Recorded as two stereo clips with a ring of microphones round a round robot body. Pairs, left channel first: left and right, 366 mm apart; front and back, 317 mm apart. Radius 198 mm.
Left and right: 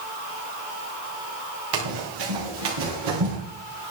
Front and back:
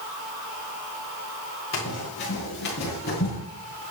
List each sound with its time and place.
1.7 s running footsteps: 60° right, 7 m; by 3.4 s 65° right, 9.5 m